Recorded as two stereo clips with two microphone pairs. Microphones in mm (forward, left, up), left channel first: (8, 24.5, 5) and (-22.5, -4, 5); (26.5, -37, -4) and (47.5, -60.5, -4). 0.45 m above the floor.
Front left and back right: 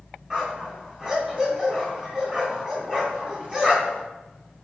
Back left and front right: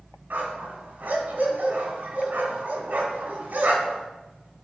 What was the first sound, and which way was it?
A dog barking, 65° right.